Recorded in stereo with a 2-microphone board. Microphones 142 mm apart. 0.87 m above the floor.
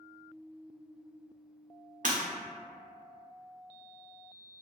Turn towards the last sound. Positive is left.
turn(degrees=-70)  # may be behind; listen again after turning